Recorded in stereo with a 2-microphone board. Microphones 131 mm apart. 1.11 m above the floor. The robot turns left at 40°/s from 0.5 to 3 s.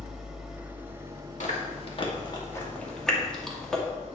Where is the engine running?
5° right, 1.5 m; by 4.2 s 105° right, 1.5 m.